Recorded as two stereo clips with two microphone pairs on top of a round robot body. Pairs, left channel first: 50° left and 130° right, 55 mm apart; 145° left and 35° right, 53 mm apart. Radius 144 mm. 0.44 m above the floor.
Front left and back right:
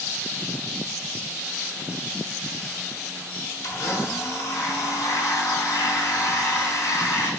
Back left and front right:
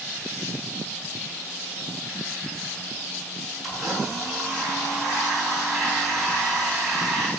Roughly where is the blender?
Ahead left.